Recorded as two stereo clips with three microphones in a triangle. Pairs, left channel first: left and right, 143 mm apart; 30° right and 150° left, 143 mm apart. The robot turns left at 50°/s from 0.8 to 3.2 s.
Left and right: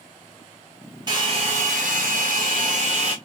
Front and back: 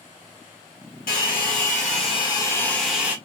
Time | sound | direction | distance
1.1 | a hair dryer | 30° right | 1.7 m